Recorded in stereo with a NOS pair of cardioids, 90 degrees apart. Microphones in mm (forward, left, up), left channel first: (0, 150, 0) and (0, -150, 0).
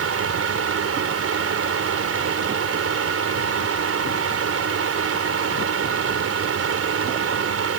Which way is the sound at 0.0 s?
50° right.